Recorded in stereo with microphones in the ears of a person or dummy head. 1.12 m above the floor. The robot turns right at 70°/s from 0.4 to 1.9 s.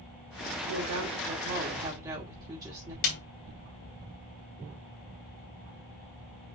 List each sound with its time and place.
0.7 s a woman speaking: 110° right, 2.5 m; by 2.9 s 20° right, 2.5 m
3.0 s a snare drum: 50° left (ahead or behind), 2.5 m